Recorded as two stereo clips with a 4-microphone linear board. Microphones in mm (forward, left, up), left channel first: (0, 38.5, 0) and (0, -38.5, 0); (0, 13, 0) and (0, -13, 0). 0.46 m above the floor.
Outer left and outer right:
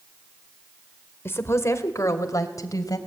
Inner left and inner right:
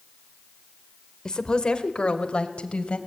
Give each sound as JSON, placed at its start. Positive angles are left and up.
{"t": 1.2, "sound": "a woman speaking", "side_deg": 30, "distance_m": 2.0}